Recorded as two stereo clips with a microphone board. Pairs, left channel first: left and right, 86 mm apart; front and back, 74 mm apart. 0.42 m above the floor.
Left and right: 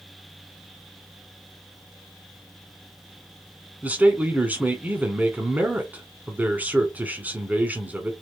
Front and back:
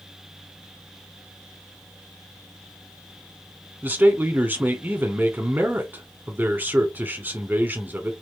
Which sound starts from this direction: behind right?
A man speaking, at 3.8 s.